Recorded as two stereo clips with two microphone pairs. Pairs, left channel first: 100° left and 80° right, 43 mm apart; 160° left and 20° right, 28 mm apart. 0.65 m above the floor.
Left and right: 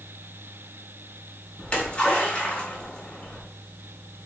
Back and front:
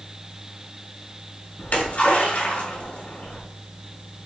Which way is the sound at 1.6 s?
165° left.